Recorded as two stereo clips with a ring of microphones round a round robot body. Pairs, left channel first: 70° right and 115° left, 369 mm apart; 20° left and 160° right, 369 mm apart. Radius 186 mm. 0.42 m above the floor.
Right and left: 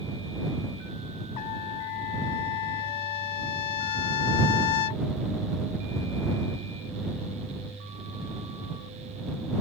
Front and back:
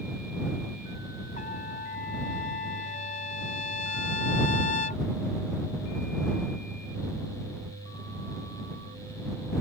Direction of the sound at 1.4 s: 50° right.